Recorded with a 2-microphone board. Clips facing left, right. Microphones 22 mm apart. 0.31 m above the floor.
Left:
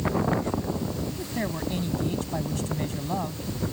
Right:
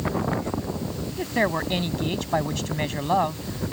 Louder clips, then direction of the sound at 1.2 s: Right 7 dB; 45° right (ahead or behind).